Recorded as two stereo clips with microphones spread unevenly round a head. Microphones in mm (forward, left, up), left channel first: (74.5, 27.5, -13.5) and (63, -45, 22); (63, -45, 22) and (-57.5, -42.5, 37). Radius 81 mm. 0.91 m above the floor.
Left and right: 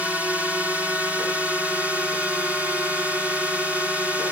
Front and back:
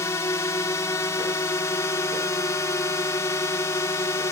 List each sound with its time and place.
0.0 s a drone: 5° left